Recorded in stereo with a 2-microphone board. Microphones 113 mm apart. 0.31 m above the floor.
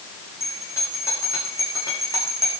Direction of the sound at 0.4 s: 25° left (ahead or behind).